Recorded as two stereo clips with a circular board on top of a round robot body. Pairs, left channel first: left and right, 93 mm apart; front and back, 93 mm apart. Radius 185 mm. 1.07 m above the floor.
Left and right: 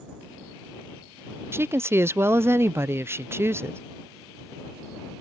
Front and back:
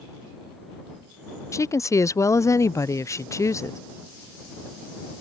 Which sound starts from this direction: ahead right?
A woman speaking, at 1.5 s.